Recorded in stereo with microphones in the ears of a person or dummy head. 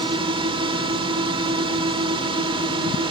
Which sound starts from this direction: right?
A drone, at 0.0 s.